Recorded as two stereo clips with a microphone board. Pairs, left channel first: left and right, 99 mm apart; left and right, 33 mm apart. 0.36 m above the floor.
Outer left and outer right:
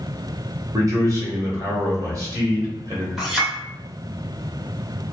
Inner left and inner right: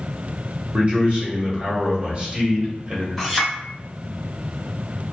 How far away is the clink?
About 1.3 m.